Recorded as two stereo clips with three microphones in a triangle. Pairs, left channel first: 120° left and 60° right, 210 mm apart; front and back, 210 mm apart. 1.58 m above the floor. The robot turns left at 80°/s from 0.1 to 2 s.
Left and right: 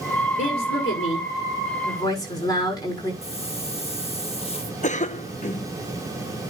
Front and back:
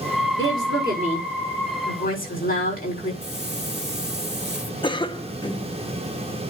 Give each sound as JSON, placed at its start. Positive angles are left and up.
{"t": 0.4, "sound": "a woman speaking", "azimuth_deg": 180, "distance_m": 6.0}
{"t": 3.2, "sound": "a hiss", "azimuth_deg": 175, "distance_m": 1.5}
{"t": 4.8, "sound": "a cough", "azimuth_deg": 65, "distance_m": 1.0}